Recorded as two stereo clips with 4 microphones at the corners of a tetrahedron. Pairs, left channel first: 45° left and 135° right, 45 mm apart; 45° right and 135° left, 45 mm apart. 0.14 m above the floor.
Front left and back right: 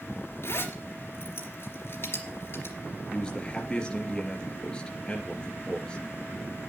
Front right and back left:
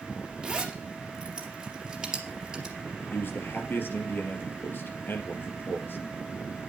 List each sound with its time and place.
0.4 s a zipper: 60° left, 3 m
3.1 s a man speaking: 25° right, 3 m